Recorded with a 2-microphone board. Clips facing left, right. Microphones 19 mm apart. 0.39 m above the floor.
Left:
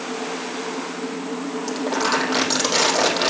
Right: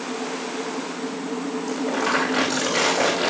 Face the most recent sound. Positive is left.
turn(degrees=35)  # may be behind; listen again after turning